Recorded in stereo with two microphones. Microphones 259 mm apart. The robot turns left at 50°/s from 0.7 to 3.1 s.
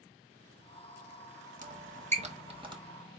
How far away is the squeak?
About 1.0 m.